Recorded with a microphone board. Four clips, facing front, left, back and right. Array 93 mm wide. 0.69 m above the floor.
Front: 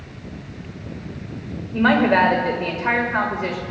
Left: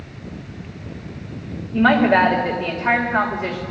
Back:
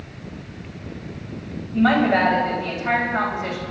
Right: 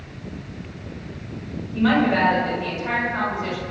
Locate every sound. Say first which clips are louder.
1.7 s a woman speaking: left 4 dB, front 1 dB; 45° left, 3 m